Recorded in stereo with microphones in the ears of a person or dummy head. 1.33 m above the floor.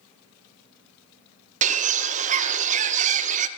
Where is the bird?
30° right (ahead or behind), 0.5 m.